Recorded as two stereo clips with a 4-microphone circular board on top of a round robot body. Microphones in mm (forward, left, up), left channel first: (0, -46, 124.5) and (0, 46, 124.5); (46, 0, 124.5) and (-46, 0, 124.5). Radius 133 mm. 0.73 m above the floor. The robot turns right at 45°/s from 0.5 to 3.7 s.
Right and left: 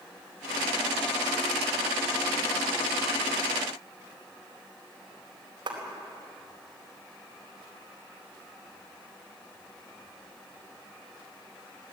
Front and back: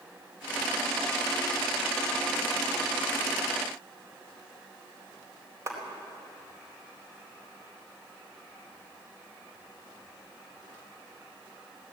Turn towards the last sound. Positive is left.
turn(degrees=125)